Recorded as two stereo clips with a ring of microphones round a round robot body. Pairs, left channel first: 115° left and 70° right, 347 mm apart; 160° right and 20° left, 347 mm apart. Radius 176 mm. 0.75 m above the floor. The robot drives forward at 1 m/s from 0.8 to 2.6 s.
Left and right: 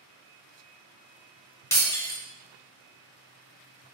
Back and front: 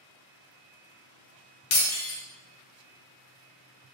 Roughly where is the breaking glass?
Behind.